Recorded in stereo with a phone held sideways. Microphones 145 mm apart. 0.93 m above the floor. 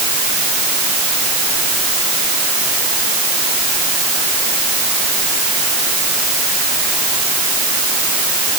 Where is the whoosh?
No whoosh in this recording.